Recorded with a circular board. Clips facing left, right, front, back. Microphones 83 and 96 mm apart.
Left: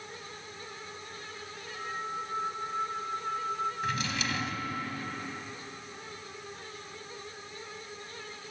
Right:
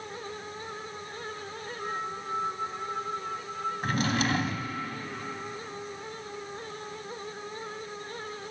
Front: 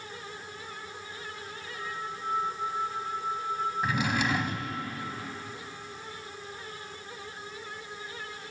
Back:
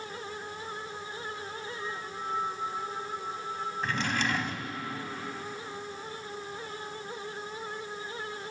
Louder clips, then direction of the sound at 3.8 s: Right 5 dB, even; 80° right.